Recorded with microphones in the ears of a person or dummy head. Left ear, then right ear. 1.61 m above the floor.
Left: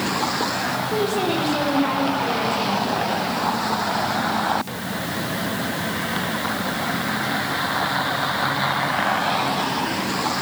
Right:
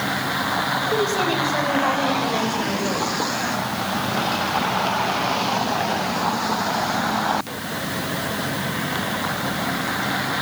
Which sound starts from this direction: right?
A woman speaking, at 0.9 s.